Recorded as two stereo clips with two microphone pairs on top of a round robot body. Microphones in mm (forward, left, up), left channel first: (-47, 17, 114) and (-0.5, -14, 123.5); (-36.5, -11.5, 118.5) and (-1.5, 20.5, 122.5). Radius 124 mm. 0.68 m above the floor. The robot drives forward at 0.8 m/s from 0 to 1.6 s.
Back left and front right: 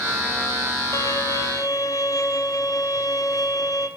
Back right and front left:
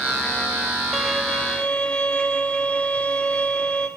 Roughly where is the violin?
Behind left.